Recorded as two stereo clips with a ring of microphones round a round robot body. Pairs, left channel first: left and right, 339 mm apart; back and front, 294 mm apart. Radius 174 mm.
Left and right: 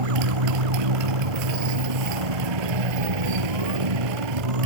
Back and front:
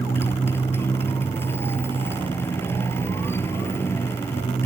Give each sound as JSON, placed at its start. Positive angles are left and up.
{"t": 0.0, "sound": "a motorcycle", "azimuth_deg": -95}